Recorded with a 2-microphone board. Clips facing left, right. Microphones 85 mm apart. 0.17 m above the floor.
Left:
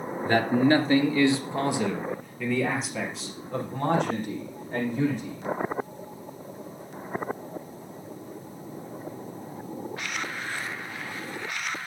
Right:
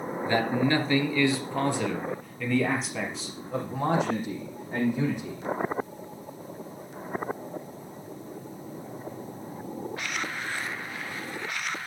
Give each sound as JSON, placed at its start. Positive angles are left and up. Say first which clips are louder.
{"t": 0.2, "sound": "a man speaking", "louder": "left 4 dB", "side_deg": 45, "distance_m": 2.5}